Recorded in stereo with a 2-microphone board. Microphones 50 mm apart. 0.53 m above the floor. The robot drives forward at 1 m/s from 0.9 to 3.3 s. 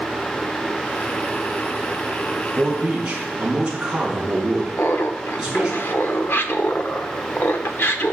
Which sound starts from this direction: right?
A man speaking, at 2.5 s.